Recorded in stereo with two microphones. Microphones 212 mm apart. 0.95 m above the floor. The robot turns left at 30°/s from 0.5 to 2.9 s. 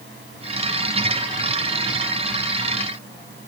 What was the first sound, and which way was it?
Only background noise.